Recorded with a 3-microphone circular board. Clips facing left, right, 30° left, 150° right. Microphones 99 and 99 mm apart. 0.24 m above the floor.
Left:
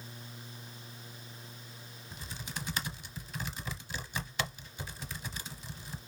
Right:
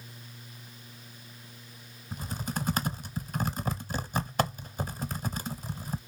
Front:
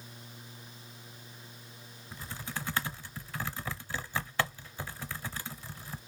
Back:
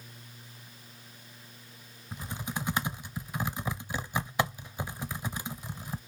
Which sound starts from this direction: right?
Typing on a keyboard, at 2.1 s.